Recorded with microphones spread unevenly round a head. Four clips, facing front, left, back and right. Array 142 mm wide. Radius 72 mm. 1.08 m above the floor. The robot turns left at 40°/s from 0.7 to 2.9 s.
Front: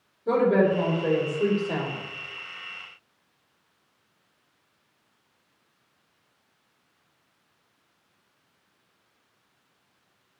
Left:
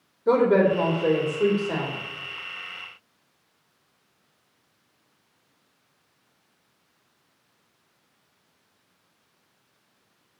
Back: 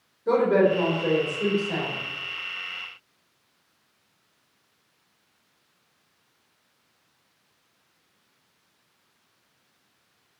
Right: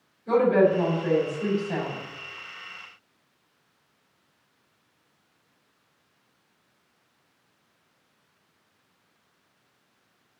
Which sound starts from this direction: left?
A woman speaking, at 0.3 s.